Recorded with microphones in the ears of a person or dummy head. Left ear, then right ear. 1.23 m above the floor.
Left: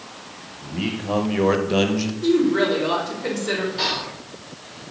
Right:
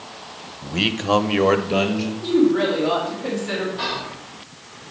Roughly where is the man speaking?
Right.